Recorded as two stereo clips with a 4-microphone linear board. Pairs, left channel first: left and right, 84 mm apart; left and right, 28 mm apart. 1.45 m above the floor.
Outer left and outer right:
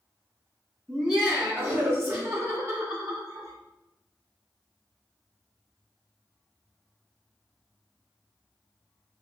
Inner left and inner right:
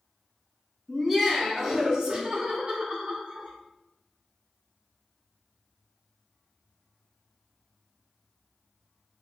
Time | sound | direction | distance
0.9 | laughter | 10° right (ahead or behind) | 1.5 m